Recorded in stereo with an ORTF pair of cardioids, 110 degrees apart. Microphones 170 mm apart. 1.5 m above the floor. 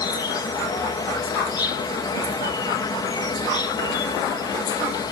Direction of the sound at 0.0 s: 25° left.